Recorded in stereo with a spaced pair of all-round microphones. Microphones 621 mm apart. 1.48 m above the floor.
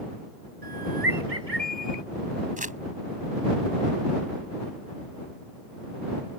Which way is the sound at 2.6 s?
10° right (ahead or behind).